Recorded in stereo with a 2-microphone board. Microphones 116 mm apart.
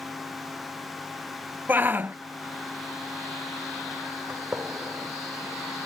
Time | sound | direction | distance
1.7 | a shout | 15° right (ahead or behind) | ?
4.3 | a gunshot | 15° right (ahead or behind) | ?